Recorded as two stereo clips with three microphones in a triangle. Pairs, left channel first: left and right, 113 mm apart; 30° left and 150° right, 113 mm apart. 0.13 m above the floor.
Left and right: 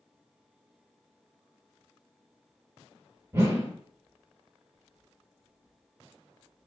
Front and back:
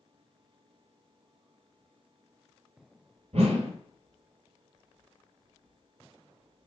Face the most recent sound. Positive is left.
turn(degrees=-155)